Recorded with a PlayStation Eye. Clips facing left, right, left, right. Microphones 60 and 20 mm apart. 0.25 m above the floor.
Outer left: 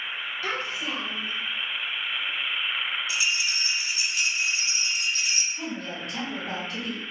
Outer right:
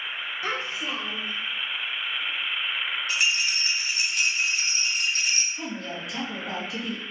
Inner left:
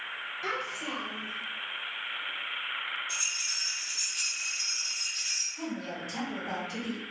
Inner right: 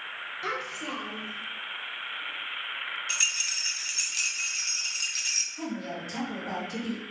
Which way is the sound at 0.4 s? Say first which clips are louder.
Even, inner right 1 dB; 20° right (ahead or behind).